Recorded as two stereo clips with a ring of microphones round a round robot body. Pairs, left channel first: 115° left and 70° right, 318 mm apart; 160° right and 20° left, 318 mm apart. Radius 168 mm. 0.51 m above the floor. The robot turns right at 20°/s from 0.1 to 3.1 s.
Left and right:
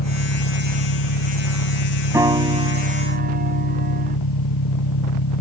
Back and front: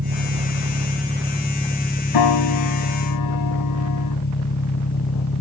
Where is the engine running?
80° left; by 5.4 s 140° left.